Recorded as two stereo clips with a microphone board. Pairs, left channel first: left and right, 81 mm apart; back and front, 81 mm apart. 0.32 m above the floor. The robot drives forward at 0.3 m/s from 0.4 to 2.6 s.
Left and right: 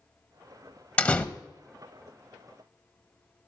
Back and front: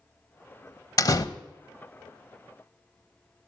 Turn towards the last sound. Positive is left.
turn(degrees=165)